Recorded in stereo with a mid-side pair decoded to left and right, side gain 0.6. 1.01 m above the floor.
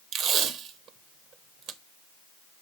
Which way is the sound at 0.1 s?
55° right.